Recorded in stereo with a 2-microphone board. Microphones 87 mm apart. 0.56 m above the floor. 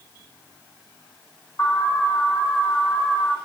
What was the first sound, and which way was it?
An alarm, 35° left (ahead or behind).